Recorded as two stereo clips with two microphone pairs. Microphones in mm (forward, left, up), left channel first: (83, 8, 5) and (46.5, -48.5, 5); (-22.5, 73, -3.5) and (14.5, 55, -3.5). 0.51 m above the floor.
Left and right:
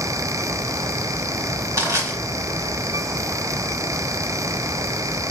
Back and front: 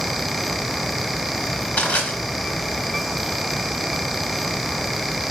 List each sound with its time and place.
1.8 s crushing: 165° right, 2.5 m